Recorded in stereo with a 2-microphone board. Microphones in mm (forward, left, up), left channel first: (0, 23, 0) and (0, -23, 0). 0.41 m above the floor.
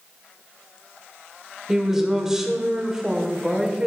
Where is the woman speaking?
10° right (ahead or behind), 1.3 m.